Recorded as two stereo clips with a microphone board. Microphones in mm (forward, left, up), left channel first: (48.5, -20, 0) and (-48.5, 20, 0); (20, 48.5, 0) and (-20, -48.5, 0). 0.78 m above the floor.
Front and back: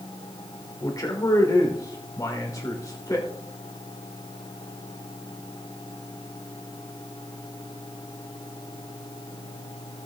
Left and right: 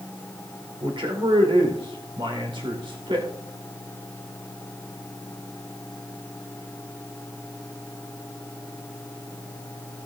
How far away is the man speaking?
About 3 m.